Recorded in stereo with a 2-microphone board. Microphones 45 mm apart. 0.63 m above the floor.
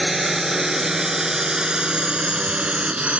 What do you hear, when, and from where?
0.0 s a drone: 5° right (ahead or behind); by 3.2 s 30° right (ahead or behind)